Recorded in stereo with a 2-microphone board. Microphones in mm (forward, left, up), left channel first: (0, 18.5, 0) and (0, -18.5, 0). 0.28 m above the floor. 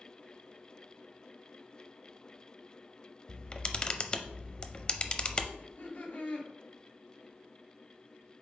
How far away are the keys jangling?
I don't hear keys jangling.